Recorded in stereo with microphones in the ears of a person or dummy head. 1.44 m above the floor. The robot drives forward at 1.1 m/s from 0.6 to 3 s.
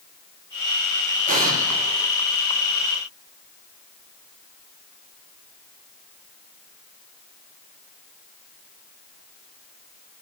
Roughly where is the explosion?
Right.